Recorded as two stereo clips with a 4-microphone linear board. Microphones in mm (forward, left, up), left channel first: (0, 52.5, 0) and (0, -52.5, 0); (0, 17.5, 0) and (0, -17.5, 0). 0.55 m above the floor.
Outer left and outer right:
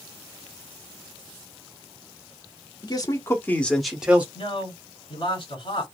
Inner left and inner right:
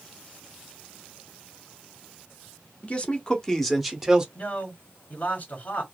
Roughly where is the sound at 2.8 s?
Left.